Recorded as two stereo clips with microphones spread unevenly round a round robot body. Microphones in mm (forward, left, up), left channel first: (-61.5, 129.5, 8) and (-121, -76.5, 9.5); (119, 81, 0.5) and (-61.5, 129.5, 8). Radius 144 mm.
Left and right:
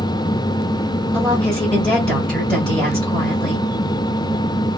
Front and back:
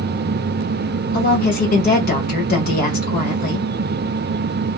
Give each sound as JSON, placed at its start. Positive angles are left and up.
{"t": 1.1, "sound": "a woman speaking", "azimuth_deg": -10, "distance_m": 1.3}